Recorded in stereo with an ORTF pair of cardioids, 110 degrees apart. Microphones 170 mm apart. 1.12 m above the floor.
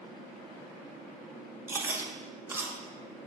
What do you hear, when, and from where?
1.7 s chewing: 15° right, 0.8 m